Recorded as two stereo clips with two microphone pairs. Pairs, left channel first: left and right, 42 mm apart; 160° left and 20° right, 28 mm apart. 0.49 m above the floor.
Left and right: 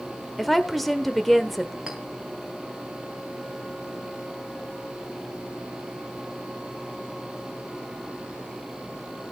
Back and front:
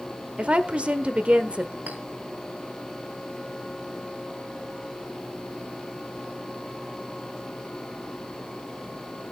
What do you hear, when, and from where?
0.4 s a woman speaking: 5° left, 1.3 m
1.9 s a clink: 15° right, 3 m